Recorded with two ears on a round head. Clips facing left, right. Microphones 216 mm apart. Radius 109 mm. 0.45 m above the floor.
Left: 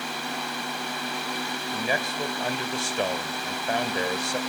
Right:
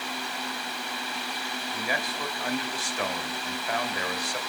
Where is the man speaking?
25° left (ahead or behind), 2 m.